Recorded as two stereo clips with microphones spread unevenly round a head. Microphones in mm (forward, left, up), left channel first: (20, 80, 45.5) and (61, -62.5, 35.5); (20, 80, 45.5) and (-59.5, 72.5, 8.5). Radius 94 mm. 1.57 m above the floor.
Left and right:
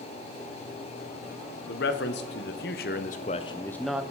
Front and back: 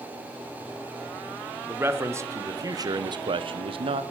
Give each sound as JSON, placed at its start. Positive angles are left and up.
{"t": 1.7, "sound": "a man speaking", "azimuth_deg": 120, "distance_m": 1.3}